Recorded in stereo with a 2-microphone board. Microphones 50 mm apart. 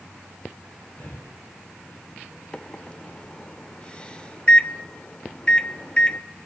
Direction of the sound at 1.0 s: 50° left (ahead or behind).